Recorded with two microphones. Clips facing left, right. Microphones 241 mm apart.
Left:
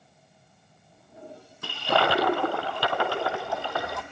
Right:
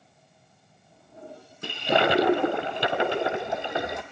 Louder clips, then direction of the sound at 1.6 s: Right 2 dB; 20° right (ahead or behind).